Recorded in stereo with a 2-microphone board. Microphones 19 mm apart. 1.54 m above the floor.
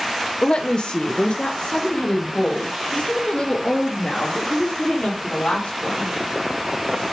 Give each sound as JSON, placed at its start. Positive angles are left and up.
{"t": 0.4, "sound": "a woman speaking", "side_deg": 55, "distance_m": 0.8}